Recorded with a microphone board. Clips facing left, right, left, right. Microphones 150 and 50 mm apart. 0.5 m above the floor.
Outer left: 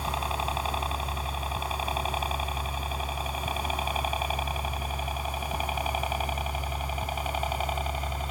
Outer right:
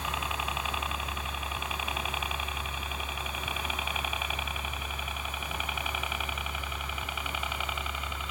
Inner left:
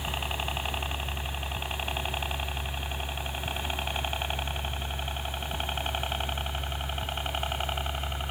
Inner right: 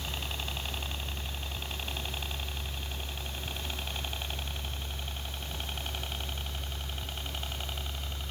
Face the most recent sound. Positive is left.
turn(degrees=40)  # may be behind; listen again after turning